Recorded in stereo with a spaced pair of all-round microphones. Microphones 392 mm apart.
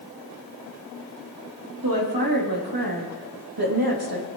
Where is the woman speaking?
65° right (ahead or behind), 3.5 m; by 4.3 s 80° right, 3 m.